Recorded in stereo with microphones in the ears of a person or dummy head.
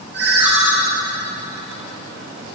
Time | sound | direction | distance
0.1 | a ringtone | 65° right (ahead or behind) | 2.5 m